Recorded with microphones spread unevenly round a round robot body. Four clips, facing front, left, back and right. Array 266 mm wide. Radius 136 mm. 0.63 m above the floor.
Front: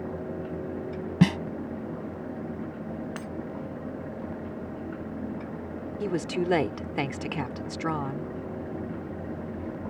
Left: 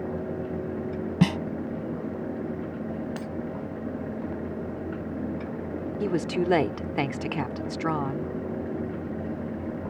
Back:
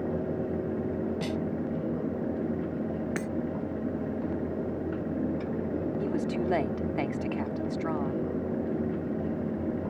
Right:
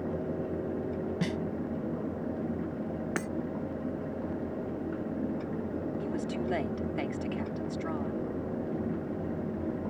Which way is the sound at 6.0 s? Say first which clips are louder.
Left 7 dB, front 1 dB; 60° left.